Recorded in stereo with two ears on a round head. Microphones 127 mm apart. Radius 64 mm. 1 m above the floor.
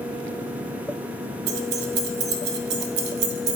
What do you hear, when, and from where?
1.5 s keys jangling: 80° right, 0.8 m